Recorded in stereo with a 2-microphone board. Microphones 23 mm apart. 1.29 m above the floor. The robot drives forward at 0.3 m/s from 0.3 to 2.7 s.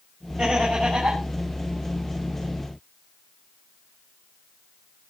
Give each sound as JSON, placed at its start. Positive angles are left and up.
{"t": 0.4, "sound": "laughter", "side_deg": -55, "distance_m": 7.0}